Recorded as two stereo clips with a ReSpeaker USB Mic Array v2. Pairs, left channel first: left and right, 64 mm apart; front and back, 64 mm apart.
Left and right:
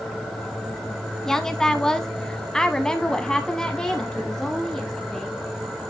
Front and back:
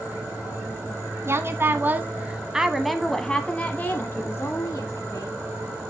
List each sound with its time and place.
1.2 s a woman speaking: 170° left, 1.3 m; by 5.4 s 10° left, 1.6 m